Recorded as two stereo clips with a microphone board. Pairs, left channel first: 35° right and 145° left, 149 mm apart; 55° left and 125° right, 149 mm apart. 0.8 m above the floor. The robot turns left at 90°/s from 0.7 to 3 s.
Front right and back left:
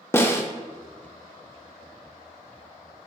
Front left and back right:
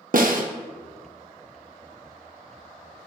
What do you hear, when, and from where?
0.1 s a snare drum: 110° right, 0.6 m